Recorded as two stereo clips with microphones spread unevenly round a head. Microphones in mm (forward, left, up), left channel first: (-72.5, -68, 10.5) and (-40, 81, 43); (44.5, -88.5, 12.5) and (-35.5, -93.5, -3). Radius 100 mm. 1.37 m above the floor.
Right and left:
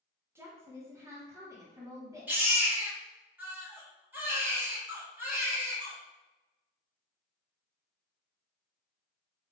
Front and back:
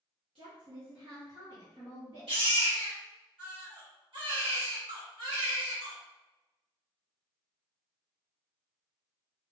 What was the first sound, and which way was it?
A woman speaking, 150° left.